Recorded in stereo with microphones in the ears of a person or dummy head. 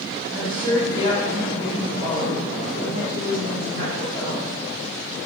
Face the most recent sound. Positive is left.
turn(degrees=-20)  # may be behind; listen again after turning